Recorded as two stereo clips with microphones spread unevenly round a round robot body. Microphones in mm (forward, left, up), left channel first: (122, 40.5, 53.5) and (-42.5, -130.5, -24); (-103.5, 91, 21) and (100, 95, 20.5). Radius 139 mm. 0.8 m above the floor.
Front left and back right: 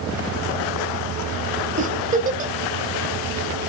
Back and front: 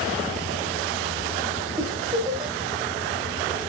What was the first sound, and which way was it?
A giggle, 75° right.